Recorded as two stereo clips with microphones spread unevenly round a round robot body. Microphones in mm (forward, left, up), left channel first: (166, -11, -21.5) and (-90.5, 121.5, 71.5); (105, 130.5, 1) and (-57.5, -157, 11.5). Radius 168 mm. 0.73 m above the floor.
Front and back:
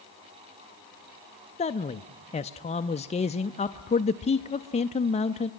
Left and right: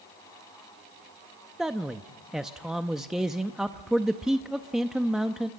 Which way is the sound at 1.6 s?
30° right.